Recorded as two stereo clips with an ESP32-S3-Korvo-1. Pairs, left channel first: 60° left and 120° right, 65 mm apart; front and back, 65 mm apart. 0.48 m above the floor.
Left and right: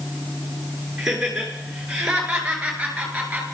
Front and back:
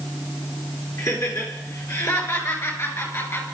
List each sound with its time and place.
1.0 s laughter: 35° right, 7 m; by 3.4 s 50° right, 7 m